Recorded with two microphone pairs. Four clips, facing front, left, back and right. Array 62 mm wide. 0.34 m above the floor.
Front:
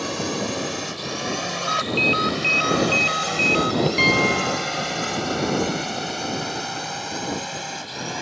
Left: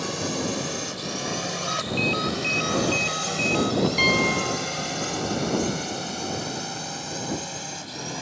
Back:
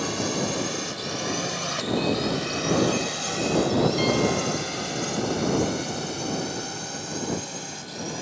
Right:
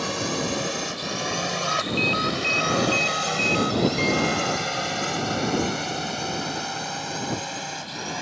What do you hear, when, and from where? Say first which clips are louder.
0.0 s a drone: right 1 dB, front 1 dB; 60° right; by 8.2 s 35° right
1.7 s a ringtone: right 1 dB, front 6 dB; 15° right
4.0 s a piano: left 1 dB, front 4 dB; 30° left